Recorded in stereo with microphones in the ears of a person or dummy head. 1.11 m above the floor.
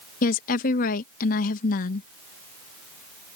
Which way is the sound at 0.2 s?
50° left (ahead or behind).